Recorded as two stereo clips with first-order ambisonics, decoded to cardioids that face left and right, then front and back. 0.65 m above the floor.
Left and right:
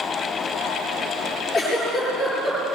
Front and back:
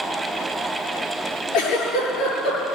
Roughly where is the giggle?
Ahead.